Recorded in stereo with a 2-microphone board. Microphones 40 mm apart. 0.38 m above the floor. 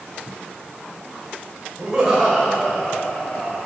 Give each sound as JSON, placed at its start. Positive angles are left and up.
{"t": 1.8, "sound": "laughter", "side_deg": -25, "distance_m": 1.8}